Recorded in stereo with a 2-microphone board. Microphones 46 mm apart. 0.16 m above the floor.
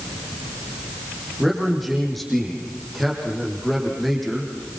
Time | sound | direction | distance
1.4 | a man speaking | 5° left (ahead or behind) | 6.5 m